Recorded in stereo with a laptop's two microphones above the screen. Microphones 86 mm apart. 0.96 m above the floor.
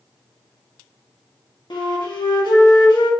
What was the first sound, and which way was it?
A flute, 60° left (ahead or behind).